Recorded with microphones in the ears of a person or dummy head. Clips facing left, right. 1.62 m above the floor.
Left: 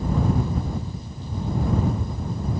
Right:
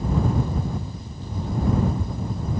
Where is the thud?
I don't hear a thud.